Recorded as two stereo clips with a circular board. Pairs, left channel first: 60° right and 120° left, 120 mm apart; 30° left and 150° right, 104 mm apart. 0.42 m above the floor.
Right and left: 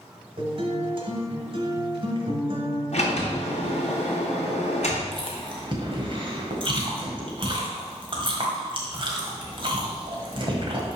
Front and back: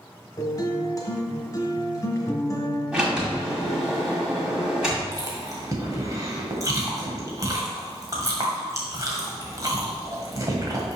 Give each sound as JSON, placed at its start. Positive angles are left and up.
{"t": 0.4, "sound": "a guitar", "azimuth_deg": 85, "distance_m": 1.3}
{"t": 2.9, "sound": "a sliding door", "azimuth_deg": -70, "distance_m": 2.0}
{"t": 5.1, "sound": "chewing", "azimuth_deg": 160, "distance_m": 1.4}